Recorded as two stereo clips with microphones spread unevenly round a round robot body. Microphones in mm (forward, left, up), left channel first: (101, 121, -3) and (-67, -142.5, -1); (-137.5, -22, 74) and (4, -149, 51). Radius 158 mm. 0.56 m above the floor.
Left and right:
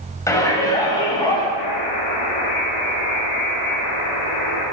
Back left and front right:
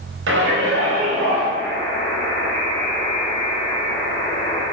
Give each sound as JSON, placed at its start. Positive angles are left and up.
{"t": 0.3, "sound": "a shout", "azimuth_deg": -25, "distance_m": 2.5}
{"t": 1.6, "sound": "a buzzer", "azimuth_deg": 50, "distance_m": 3.5}